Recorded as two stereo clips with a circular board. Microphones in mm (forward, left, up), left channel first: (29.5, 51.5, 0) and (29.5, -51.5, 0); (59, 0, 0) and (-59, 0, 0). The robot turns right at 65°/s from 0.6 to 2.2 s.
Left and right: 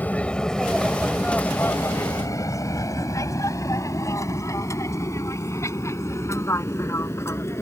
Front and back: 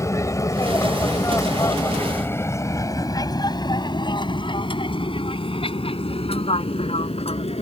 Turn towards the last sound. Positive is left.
turn(degrees=25)